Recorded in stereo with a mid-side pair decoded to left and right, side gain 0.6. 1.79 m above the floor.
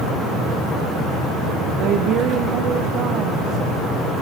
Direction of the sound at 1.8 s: 60° right.